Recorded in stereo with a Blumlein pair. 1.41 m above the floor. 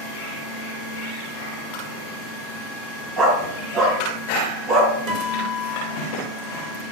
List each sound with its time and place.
3.2 s a dog barking: 30° right, 8.5 m; by 4.9 s 40° right, 9 m
5.1 s a guitar: 45° right, 5.5 m